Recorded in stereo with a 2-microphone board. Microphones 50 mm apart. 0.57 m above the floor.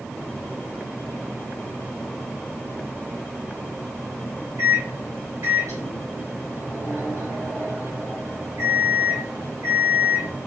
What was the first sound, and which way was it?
A microwave, 55° right (ahead or behind).